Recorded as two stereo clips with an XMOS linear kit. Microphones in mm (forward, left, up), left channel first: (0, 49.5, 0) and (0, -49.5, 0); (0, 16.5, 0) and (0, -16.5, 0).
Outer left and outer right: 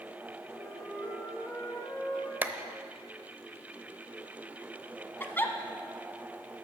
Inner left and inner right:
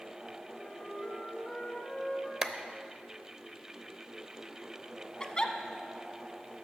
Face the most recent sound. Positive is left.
turn(degrees=20)  # may be behind; listen again after turning